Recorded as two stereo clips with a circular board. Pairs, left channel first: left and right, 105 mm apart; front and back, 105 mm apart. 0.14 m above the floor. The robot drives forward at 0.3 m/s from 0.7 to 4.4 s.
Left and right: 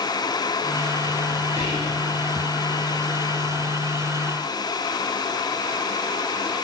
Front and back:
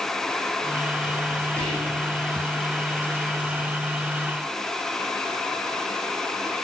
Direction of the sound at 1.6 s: 40° right.